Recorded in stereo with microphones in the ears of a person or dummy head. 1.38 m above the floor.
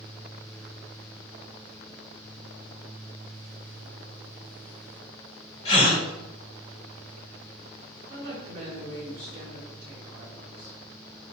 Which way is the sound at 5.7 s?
35° left (ahead or behind).